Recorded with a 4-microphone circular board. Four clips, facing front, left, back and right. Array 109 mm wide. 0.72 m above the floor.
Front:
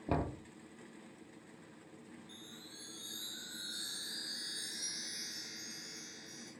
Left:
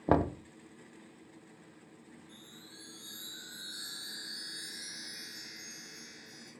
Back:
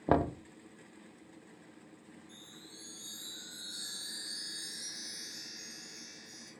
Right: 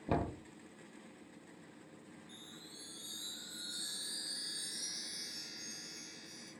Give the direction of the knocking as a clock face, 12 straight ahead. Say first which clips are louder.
Left 8 dB, back 8 dB; 8 o'clock.